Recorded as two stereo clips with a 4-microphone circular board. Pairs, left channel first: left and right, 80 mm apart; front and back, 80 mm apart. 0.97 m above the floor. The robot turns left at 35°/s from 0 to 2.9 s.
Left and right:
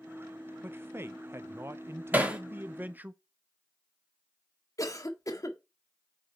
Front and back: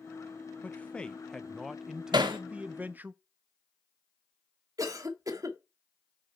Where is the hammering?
155° right, 1.6 m; by 2.4 s 165° right, 1.6 m.